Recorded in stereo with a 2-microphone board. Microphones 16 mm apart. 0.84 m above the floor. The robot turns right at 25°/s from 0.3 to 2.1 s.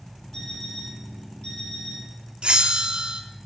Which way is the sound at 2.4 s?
75° right (ahead or behind).